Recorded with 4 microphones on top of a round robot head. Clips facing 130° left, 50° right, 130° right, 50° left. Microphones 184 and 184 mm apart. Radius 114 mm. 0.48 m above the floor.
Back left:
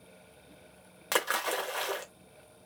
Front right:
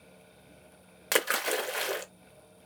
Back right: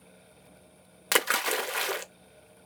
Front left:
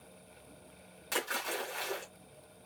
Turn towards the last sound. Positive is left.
turn(degrees=-120)